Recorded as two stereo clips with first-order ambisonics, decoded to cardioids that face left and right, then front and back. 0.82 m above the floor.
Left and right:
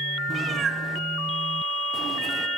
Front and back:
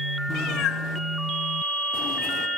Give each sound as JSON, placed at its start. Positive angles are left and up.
{"t": 0.3, "sound": "a cat meowing", "azimuth_deg": -20, "distance_m": 0.5}